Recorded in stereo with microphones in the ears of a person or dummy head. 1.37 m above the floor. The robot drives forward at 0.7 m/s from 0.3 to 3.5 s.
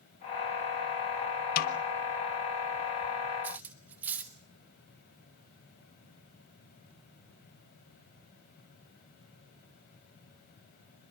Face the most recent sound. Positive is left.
turn(degrees=-10)  # may be behind; listen again after turning